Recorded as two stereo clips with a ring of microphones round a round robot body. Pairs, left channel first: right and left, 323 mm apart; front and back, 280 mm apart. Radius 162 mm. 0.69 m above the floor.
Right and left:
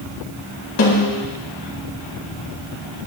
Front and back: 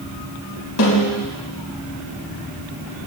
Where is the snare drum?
40° right, 4 m.